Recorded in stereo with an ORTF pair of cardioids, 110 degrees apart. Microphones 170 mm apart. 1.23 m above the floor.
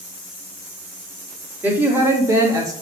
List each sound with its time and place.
1.6 s a woman speaking: 10° right, 3 m; by 2.7 s 20° right, 2.5 m